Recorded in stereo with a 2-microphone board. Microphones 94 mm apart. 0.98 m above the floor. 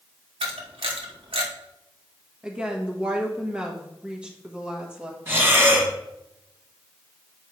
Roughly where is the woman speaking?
Centre.